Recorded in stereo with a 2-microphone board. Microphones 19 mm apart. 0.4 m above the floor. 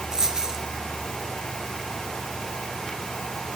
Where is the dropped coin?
35° right (ahead or behind), 3.5 m.